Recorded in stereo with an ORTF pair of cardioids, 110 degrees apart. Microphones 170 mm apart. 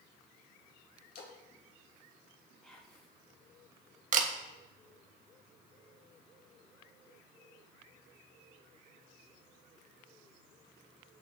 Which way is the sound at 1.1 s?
70° left.